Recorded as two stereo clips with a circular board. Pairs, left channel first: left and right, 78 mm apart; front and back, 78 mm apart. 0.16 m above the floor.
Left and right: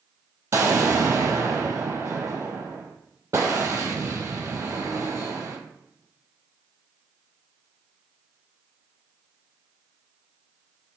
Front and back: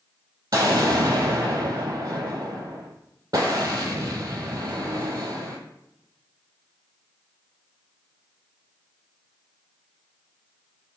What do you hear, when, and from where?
0.5 s an explosion: 145° right, 0.8 m